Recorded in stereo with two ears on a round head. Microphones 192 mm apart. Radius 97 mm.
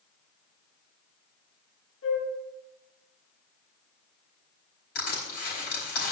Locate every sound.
2.0 s a flute: 85° left, 5 m
5.0 s crushing: 50° left (ahead or behind), 4 m